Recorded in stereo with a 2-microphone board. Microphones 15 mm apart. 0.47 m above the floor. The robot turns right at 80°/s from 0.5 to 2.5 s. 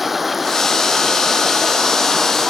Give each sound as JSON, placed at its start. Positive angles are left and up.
{"t": 0.0, "sound": "running water", "azimuth_deg": -170}